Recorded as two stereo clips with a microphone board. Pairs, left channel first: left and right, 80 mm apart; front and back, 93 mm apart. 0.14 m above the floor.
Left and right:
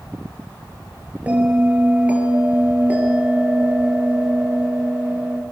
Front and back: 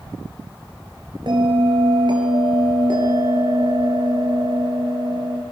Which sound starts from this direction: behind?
A bell, at 1.3 s.